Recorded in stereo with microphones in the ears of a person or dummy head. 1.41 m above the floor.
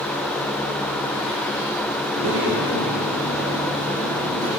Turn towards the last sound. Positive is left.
turn(degrees=-85)